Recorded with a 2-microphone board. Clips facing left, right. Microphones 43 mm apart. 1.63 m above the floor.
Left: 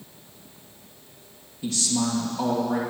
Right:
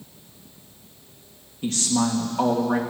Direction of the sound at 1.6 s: 60° right (ahead or behind).